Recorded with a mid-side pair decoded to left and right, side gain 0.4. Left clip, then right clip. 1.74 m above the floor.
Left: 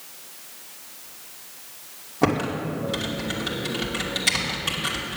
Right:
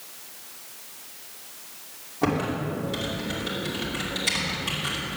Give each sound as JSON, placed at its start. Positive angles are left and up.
{"t": 2.2, "sound": "typing on a keyboard", "azimuth_deg": 40, "distance_m": 2.5}